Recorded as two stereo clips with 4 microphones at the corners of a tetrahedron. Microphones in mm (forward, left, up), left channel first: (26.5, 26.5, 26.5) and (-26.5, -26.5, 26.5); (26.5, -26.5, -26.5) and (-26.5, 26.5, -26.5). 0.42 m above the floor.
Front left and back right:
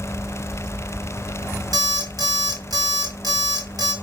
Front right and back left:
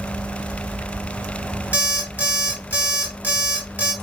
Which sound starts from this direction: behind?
An alarm clock, at 1.7 s.